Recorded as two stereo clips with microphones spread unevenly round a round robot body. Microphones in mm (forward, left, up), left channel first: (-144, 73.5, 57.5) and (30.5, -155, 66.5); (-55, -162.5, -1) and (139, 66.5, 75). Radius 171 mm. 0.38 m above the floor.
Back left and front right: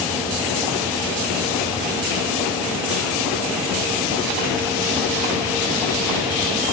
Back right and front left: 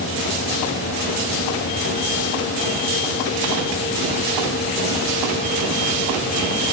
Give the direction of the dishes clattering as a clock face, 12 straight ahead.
No dishes clattering in this recording.